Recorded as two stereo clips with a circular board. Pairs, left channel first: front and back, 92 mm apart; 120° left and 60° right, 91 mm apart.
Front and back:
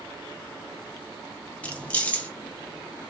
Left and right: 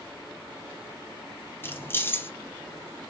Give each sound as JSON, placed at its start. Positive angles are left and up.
{"t": 1.6, "sound": "keys jangling", "azimuth_deg": 70, "distance_m": 0.6}